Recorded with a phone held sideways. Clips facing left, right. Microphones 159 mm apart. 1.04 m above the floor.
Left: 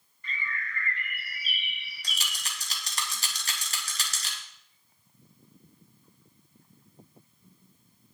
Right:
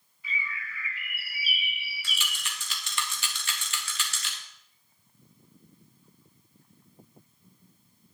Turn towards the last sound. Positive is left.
turn(degrees=40)  # may be behind; listen again after turning